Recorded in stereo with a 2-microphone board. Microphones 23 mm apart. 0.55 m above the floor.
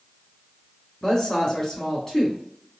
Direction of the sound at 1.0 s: 15° left (ahead or behind).